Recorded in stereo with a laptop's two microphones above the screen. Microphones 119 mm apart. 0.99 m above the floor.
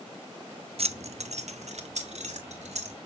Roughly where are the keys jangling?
Right.